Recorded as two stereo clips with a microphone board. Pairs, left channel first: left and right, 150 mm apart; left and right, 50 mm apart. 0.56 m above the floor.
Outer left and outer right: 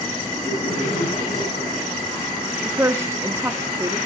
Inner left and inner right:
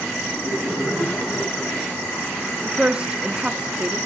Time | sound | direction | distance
0.3 | laughter | 40° left (ahead or behind) | 6 m
2.6 | a woman speaking | 20° right (ahead or behind) | 0.6 m